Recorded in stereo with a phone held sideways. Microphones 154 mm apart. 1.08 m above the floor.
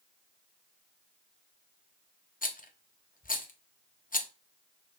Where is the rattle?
65° left (ahead or behind), 0.6 m.